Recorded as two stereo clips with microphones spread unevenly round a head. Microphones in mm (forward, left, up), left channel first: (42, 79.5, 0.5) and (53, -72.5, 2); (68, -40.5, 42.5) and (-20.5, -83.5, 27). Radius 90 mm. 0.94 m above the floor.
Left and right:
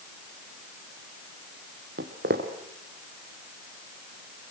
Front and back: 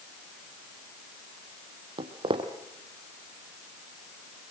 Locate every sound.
2.0 s footsteps: 120° right, 2.5 m